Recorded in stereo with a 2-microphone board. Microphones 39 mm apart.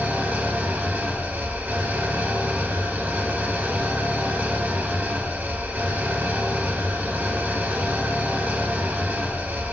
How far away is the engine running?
About 0.7 m.